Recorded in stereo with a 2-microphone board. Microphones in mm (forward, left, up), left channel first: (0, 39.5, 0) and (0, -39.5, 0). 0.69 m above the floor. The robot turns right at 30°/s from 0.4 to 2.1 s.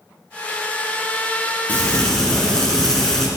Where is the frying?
20° left (ahead or behind), 3 m; by 3.3 s 10° left (ahead or behind), 3 m.